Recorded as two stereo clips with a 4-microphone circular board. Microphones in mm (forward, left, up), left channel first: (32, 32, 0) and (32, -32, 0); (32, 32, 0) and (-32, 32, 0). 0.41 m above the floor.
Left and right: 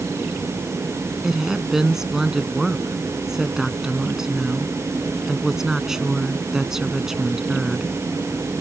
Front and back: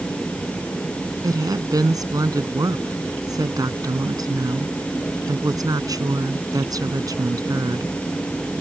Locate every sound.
1.2 s a woman speaking: 175° right